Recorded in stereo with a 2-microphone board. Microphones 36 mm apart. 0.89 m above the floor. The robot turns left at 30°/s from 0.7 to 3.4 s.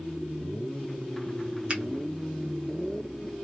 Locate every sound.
1.7 s a finger snap: 30° right (ahead or behind), 0.8 m